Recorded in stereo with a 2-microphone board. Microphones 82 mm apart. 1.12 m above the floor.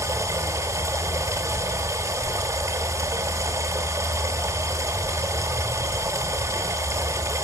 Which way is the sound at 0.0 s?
35° right (ahead or behind).